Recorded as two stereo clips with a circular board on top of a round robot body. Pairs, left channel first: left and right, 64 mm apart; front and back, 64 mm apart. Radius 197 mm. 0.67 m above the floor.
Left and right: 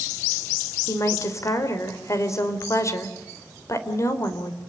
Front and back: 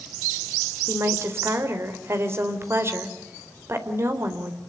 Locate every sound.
0.9 s a woman speaking: 130° left, 4 m